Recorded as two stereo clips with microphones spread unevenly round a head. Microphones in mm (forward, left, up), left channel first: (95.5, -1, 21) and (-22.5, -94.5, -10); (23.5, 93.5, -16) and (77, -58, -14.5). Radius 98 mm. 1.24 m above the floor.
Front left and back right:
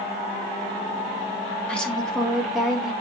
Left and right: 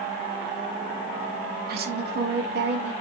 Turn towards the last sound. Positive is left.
turn(degrees=-55)